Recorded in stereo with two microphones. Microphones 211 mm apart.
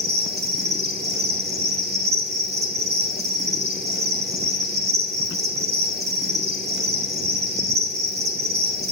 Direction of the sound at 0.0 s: 50° right (ahead or behind).